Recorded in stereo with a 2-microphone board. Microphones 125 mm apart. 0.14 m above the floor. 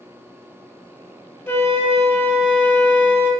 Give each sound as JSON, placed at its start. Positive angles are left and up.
{"t": 1.5, "sound": "a flute", "side_deg": 20, "distance_m": 1.6}